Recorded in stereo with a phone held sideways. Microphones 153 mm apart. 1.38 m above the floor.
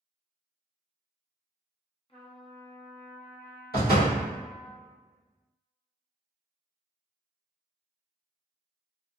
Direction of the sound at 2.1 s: 35° left (ahead or behind).